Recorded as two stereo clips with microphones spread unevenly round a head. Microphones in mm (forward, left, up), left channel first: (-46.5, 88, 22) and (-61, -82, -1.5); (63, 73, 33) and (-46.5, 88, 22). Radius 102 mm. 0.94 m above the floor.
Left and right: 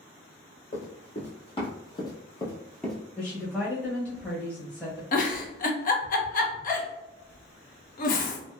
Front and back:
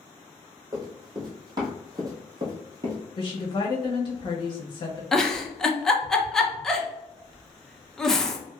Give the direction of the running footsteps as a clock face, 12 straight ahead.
8 o'clock.